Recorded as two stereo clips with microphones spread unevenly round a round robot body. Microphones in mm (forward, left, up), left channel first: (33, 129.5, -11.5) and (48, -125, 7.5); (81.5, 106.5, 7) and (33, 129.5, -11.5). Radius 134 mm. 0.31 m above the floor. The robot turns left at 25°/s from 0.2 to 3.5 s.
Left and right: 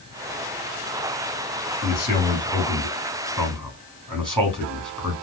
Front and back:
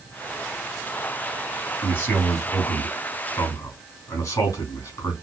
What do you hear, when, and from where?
1.8 s a man speaking: 30° left, 3 m; by 5.2 s 15° right, 3 m